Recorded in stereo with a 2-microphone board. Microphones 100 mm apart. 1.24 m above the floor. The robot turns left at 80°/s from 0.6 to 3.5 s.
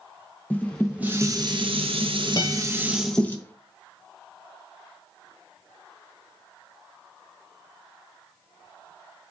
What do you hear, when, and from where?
0.5 s dishes clattering: 15° left, 0.7 m; by 3.4 s 155° left, 0.7 m
2.4 s a guitar: 45° left (ahead or behind), 1.3 m